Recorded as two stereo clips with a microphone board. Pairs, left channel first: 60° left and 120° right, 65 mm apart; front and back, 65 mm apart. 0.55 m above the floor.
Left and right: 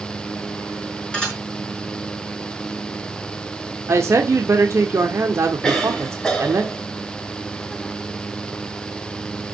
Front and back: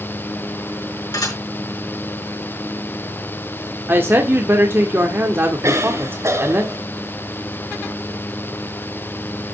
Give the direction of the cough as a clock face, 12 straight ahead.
7 o'clock.